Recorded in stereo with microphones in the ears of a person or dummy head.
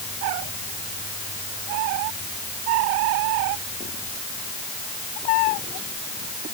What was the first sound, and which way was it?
Only background noise.